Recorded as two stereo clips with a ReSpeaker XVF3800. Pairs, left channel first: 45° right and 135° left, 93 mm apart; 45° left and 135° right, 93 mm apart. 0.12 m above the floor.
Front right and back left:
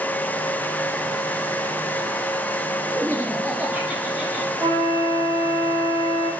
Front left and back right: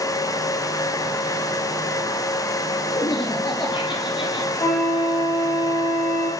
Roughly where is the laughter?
Left.